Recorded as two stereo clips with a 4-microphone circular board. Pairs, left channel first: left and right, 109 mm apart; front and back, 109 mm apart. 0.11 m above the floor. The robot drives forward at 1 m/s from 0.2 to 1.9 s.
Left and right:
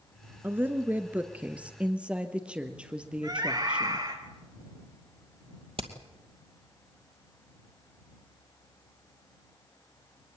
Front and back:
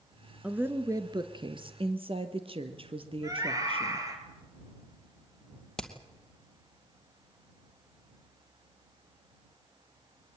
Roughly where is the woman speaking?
Behind right.